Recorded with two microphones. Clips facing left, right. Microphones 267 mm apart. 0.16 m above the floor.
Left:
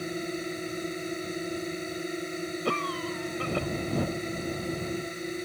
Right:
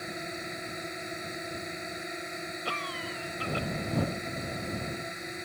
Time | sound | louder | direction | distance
0.0 | a drone | left 7 dB | 35° left (ahead or behind) | ?
2.6 | a cough | left 8 dB | 55° left (ahead or behind) | ?